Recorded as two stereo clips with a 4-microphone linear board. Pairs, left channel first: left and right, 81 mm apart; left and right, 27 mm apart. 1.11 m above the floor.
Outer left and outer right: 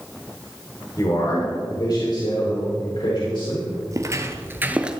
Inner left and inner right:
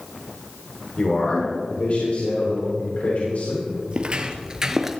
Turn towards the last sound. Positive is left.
turn(degrees=-5)  # may be behind; listen again after turning